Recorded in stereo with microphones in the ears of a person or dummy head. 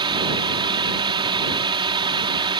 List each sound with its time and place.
0.0 s a drone: 25° right (ahead or behind)